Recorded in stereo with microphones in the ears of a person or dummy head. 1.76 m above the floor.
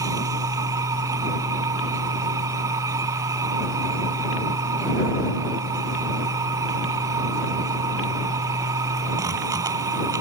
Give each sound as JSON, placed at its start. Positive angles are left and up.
{"t": 0.0, "sound": "a machine running", "side_deg": -20}